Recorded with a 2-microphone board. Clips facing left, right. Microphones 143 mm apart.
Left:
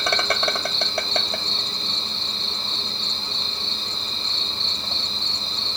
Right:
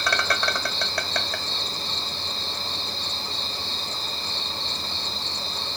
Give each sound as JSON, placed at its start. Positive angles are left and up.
{"t": 0.0, "sound": "an insect", "side_deg": 25, "distance_m": 1.1}